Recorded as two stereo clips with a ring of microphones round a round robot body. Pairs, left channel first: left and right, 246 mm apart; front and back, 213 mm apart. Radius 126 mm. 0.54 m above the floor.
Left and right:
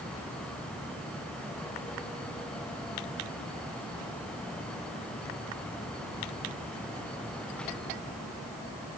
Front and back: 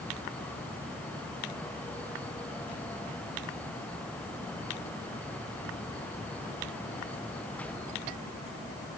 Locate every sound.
Only background noise.